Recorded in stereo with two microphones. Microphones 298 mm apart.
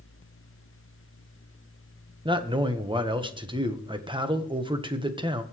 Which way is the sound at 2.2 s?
15° right (ahead or behind).